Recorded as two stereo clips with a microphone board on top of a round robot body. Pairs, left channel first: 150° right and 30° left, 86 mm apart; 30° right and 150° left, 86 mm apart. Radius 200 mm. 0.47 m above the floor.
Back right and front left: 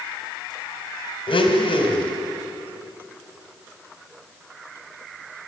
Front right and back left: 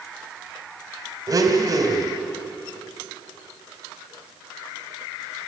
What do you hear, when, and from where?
1.3 s a blender: 160° right, 2.5 m